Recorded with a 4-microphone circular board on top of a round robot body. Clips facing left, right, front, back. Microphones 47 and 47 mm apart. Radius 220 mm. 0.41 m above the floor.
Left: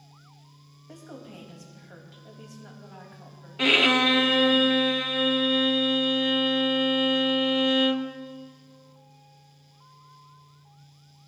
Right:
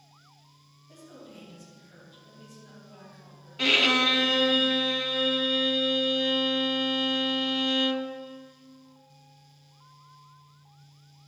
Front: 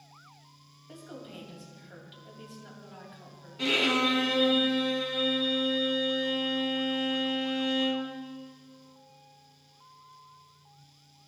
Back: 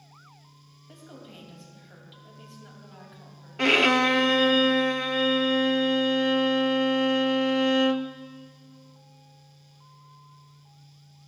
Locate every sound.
0.9 s a woman speaking: 90° left, 4 m
3.6 s a violin: 160° left, 1.1 m